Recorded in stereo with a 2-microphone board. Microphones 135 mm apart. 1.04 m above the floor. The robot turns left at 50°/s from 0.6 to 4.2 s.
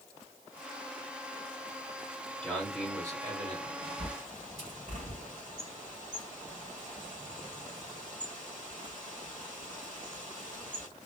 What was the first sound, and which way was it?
A man speaking, 10° left.